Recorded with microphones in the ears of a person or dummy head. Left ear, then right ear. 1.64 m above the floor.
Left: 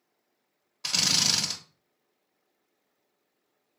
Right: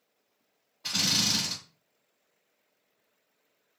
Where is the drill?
70° left (ahead or behind), 1.1 m.